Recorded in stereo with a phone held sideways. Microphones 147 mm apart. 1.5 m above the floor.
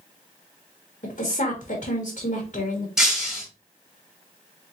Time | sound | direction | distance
1.0 | a woman speaking | 60° left (ahead or behind) | 1.4 m
3.0 | breaking glass | 5° right (ahead or behind) | 1.7 m